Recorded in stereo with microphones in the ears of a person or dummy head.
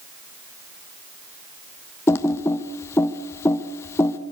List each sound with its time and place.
2.1 s typing on a keyboard: 15° left (ahead or behind), 1.1 m